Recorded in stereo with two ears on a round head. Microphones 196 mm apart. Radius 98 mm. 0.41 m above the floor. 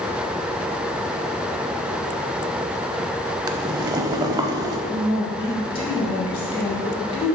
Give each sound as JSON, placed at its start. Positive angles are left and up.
{"t": 3.5, "sound": "boiling", "side_deg": -15, "distance_m": 0.5}
{"t": 4.9, "sound": "a woman speaking", "side_deg": 25, "distance_m": 2.5}